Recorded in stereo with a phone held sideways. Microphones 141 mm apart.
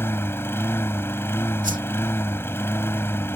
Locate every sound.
0.0 s a lawn mower: 20° left (ahead or behind)
1.6 s a whoosh: 80° right